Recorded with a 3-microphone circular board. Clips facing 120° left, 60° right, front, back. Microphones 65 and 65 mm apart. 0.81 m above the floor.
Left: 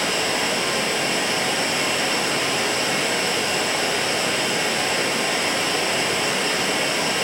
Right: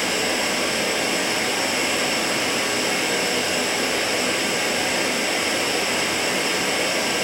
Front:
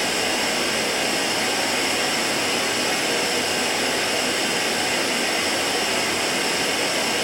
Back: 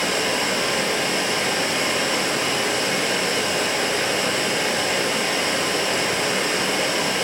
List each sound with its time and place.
0.0 s running water: 145° right, 3 m